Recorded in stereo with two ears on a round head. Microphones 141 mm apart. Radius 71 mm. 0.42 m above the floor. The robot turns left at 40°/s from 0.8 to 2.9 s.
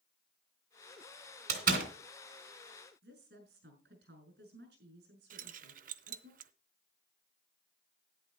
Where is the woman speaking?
75° right (ahead or behind), 6.5 m.